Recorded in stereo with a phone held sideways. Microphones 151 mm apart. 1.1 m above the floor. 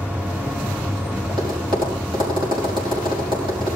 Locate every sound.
0.0 s a machine running: 10° right (ahead or behind), 2 m
1.3 s tapping: 35° right (ahead or behind), 5.5 m